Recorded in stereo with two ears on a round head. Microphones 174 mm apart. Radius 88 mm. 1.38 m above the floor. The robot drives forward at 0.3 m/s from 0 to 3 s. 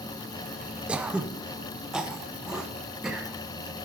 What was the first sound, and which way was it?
Throat clearing, 5° right (ahead or behind).